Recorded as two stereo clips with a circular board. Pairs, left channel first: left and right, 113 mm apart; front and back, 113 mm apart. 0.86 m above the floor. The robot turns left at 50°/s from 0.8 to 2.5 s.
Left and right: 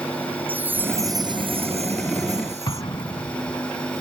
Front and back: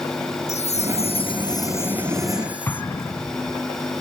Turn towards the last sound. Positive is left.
turn(degrees=60)